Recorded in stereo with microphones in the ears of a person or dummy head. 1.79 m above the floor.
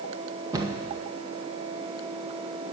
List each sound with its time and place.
0.5 s a cupboard door: 25° right (ahead or behind), 1.3 m